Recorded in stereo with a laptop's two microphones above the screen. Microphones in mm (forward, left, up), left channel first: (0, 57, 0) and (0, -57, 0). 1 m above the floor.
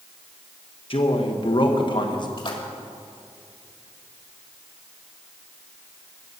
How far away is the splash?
About 1.9 m.